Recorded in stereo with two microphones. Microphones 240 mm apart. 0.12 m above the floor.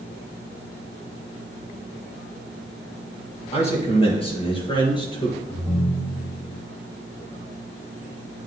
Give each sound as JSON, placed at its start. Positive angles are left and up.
{"t": 3.5, "sound": "a man speaking", "side_deg": 25, "distance_m": 3.0}
{"t": 5.5, "sound": "a ringtone", "side_deg": 15, "distance_m": 2.5}